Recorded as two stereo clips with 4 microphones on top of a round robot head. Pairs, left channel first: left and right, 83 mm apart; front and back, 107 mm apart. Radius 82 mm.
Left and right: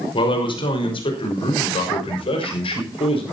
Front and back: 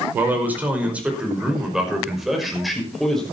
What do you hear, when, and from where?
0.1 s a man speaking: 110° left, 5.5 m; by 3.2 s 85° left, 6 m